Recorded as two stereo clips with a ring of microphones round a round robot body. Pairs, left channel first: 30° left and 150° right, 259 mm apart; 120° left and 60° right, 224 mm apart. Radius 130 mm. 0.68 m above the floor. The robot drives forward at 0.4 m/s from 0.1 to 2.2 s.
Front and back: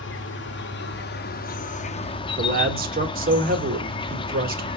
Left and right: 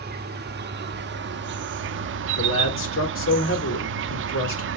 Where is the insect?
15° right, 1.4 m; by 4.8 s 40° right, 0.7 m.